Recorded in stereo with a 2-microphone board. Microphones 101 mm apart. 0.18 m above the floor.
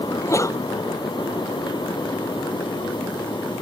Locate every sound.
0.1 s a sneeze: 30° left (ahead or behind)